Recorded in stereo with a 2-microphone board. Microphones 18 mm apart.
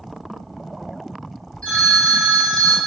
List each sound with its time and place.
1.6 s a phone ringing: 65° left (ahead or behind), 2.5 m